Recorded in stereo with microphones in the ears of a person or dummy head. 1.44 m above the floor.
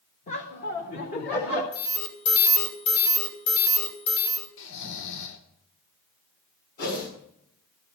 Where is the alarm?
60° left (ahead or behind), 1.8 m.